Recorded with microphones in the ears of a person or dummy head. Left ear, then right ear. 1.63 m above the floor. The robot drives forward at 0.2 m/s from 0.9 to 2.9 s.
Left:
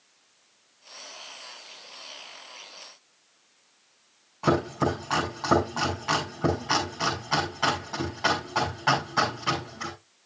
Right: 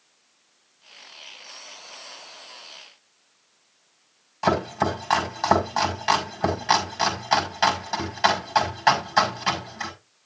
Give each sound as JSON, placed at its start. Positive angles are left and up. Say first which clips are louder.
{"t": 4.4, "sound": "chopping", "louder": "right 2 dB", "side_deg": -80, "distance_m": 5.5}